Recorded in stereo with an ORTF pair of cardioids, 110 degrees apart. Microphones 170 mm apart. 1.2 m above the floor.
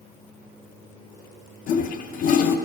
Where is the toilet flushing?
55° left, 0.6 m.